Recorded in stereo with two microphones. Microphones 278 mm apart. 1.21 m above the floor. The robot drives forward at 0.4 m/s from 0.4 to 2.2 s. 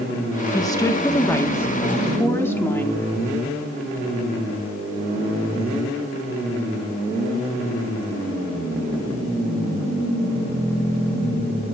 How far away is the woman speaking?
About 1.1 m.